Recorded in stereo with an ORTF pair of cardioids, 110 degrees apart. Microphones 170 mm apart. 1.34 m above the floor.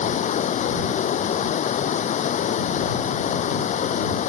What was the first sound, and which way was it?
Running water, 45° left.